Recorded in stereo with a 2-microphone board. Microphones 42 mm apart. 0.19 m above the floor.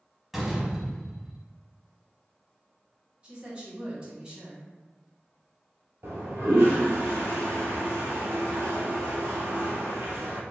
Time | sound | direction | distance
0.3 | a door slam | 10° right (ahead or behind) | 0.7 m
3.2 | a woman speaking | 25° right (ahead or behind) | 1.6 m
6.0 | a toilet flushing | 70° right (ahead or behind) | 0.9 m